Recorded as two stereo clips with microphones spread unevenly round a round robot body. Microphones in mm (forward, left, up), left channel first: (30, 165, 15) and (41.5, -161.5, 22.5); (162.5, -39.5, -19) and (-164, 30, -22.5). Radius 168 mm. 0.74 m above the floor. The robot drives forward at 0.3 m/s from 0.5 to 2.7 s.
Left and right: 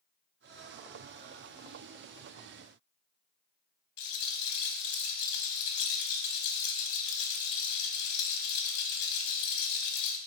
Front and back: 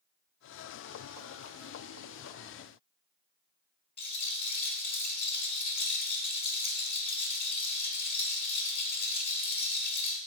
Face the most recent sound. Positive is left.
turn(degrees=65)